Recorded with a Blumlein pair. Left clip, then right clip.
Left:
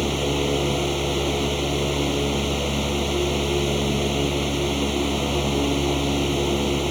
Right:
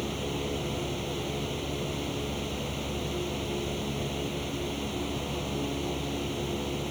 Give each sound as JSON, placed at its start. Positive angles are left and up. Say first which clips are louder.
{"t": 0.0, "sound": "a fan", "louder": "left 10 dB", "azimuth_deg": 30}